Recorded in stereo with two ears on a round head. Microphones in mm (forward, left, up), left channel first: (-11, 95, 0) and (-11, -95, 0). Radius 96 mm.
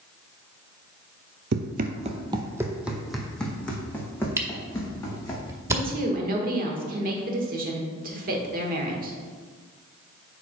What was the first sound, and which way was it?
Running footsteps, 50° right (ahead or behind).